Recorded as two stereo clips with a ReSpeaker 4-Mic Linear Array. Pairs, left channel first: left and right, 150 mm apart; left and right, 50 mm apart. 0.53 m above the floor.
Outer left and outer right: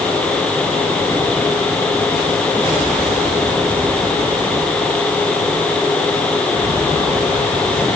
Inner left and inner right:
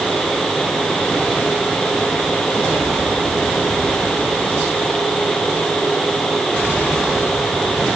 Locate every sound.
Only background noise.